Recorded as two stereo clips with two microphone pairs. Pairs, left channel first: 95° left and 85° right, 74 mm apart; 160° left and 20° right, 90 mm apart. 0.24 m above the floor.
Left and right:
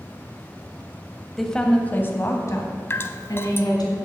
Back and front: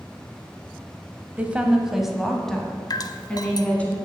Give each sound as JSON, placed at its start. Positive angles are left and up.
{"t": 1.4, "sound": "a woman speaking", "azimuth_deg": 15, "distance_m": 0.9}
{"t": 2.9, "sound": "dripping", "azimuth_deg": 135, "distance_m": 0.5}